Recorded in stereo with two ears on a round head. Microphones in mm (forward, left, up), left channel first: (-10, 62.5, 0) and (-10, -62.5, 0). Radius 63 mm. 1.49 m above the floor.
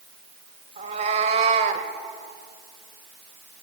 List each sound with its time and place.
0.8 s a cat meowing: 50° right (ahead or behind), 2 m